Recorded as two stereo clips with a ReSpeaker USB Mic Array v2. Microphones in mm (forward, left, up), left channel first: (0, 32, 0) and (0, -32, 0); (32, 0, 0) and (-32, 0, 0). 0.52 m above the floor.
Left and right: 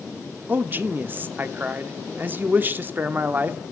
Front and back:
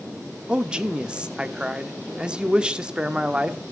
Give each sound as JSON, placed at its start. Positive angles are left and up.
{"t": 0.5, "sound": "a man speaking", "azimuth_deg": -115, "distance_m": 1.0}